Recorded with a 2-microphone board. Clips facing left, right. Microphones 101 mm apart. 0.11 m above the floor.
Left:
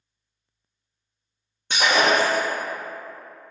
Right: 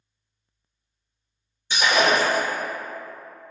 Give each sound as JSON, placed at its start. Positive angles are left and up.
{"t": 1.7, "sound": "breaking glass", "side_deg": 60, "distance_m": 1.4}